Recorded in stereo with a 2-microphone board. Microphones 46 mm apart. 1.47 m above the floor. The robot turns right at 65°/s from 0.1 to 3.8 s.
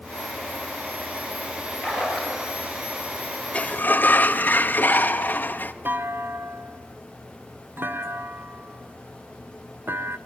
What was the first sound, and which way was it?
A splash, 160° left.